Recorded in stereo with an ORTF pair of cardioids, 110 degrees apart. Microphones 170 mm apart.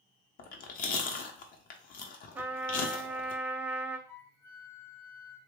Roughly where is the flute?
Ahead.